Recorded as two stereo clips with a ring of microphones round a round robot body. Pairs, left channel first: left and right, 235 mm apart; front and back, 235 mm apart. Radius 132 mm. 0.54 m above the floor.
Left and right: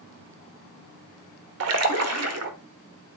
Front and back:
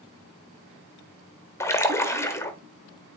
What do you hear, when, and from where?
1.6 s a splash: 80° right, 1.1 m